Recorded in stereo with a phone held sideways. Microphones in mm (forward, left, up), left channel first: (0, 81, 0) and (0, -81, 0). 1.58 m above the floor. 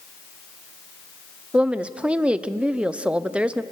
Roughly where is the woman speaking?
Centre.